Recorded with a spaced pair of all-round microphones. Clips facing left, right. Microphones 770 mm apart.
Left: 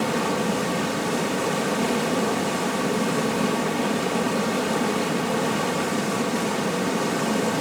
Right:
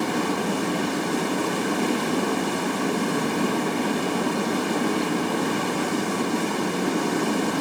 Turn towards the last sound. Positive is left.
turn(degrees=20)  # may be behind; listen again after turning